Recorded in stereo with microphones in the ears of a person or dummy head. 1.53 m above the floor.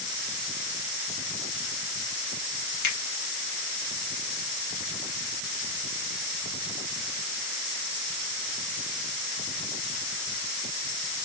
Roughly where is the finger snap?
Left.